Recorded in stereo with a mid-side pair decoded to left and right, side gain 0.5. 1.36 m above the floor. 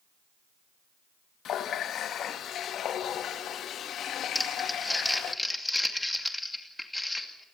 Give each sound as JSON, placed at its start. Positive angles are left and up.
{"t": 1.4, "sound": "a running tap", "azimuth_deg": 60, "distance_m": 1.3}
{"t": 4.3, "sound": "crumpling", "azimuth_deg": 10, "distance_m": 2.5}